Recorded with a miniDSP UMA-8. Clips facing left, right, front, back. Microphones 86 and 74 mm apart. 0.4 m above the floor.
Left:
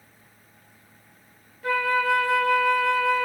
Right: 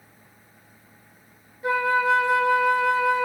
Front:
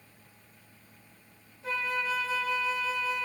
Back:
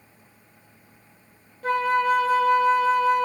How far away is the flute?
About 0.6 m.